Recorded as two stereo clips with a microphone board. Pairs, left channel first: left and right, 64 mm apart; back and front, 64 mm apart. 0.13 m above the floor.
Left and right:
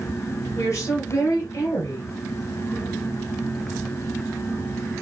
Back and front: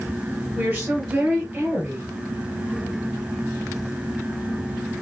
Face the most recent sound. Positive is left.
turn(degrees=60)